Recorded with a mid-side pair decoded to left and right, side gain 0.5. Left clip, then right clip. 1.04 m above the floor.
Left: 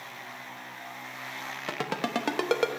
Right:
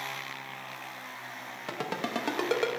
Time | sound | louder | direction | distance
1.7 | a ringtone | left 2 dB | 25° left | 0.6 m